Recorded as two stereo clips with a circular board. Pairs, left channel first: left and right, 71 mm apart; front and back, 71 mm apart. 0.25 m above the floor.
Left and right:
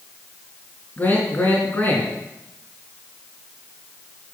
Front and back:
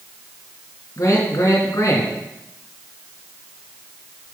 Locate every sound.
1.0 s a man speaking: 25° left, 2.5 m